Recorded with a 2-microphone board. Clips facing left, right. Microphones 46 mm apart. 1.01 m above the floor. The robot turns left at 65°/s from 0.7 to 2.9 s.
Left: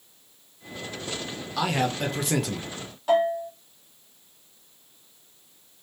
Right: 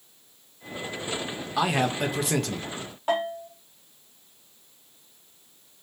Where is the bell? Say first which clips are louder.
Left 5 dB; 30° right (ahead or behind), 1.5 m.